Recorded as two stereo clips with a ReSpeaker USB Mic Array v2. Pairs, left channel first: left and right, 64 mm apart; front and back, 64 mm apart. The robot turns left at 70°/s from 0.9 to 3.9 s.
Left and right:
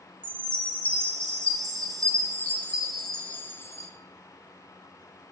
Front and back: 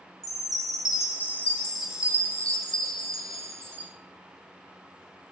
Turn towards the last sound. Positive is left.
turn(degrees=120)